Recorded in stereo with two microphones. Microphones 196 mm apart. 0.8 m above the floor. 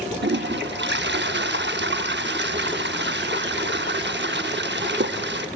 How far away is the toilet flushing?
About 0.7 m.